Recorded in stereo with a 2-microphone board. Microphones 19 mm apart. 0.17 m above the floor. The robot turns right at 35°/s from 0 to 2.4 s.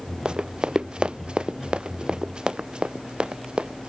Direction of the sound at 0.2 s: 55° right (ahead or behind).